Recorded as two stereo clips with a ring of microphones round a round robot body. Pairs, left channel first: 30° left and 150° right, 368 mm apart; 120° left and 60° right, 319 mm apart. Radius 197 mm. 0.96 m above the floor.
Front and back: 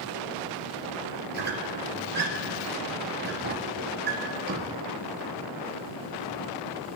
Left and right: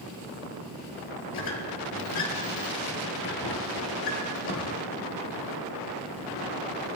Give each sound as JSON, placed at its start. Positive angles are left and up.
{"t": 1.3, "sound": "a squeak", "azimuth_deg": 150, "distance_m": 2.0}